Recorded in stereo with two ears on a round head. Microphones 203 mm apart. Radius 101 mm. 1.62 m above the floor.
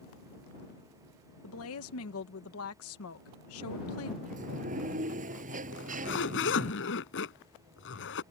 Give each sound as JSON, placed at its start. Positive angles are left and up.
{"t": 1.4, "sound": "a woman speaking", "side_deg": 70}
{"t": 4.2, "sound": "a sliding door", "side_deg": -35}
{"t": 5.7, "sound": "a zipper", "side_deg": 55}